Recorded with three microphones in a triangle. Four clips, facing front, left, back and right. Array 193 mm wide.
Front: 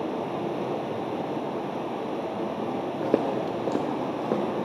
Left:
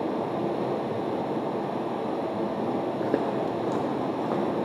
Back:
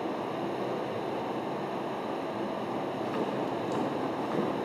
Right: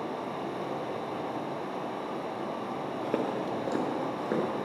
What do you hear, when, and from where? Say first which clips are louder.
0.0 s running water: left 7 dB, front 4 dB; 65° left, 0.9 m
3.0 s footsteps: left 2 dB, front 9 dB; 10° left, 0.7 m; by 4.5 s 10° right, 1.8 m